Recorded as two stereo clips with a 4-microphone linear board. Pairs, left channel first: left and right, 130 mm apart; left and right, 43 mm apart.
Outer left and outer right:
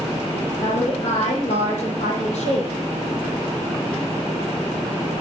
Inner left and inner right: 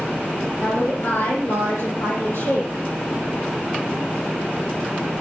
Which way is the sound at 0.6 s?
65° left (ahead or behind).